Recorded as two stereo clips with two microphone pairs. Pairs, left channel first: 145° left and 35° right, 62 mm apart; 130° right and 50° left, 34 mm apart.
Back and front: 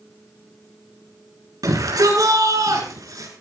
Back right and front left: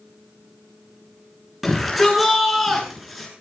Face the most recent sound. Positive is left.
turn(degrees=-35)